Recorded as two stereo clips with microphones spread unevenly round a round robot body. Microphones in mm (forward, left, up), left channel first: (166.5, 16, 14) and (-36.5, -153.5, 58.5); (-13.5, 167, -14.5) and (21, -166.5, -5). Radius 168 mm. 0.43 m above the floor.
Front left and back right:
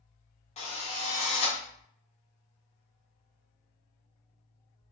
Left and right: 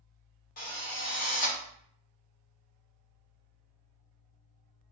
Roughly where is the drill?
Ahead left.